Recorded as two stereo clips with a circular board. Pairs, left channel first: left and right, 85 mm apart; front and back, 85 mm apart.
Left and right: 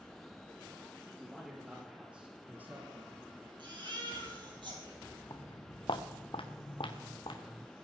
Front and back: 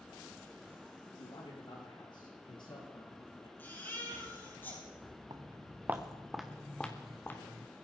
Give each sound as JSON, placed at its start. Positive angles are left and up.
{"t": 1.2, "sound": "a man speaking", "azimuth_deg": 0, "distance_m": 6.5}
{"t": 3.6, "sound": "a baby crying", "azimuth_deg": -65, "distance_m": 4.0}
{"t": 5.3, "sound": "footsteps", "azimuth_deg": 135, "distance_m": 1.7}